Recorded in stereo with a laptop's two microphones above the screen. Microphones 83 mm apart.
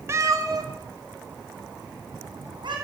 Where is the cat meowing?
35° right (ahead or behind), 0.8 m; by 2.8 s 75° right (ahead or behind), 3 m.